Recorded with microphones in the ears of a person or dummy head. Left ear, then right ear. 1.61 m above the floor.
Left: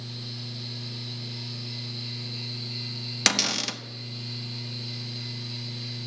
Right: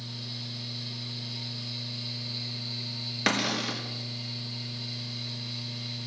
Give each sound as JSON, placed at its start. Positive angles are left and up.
{"t": 0.0, "sound": "a fan", "side_deg": -20, "distance_m": 5.0}
{"t": 3.3, "sound": "a cupboard door", "side_deg": 80, "distance_m": 0.8}